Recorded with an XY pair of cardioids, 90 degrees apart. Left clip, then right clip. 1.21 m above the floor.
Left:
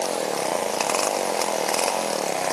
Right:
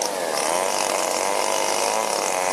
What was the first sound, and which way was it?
Only background noise.